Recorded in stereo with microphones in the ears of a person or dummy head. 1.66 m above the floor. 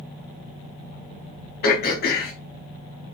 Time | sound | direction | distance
1.6 | throat clearing | 50° left (ahead or behind) | 1.0 m